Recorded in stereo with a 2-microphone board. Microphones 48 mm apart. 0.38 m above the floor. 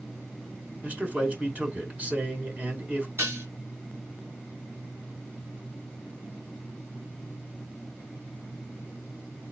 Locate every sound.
0.8 s a man speaking: 35° right (ahead or behind), 1.5 m
3.2 s dishes clattering: 65° right (ahead or behind), 2.5 m